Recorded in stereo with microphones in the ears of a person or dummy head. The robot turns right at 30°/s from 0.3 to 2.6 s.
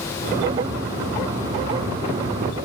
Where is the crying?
I don't hear crying.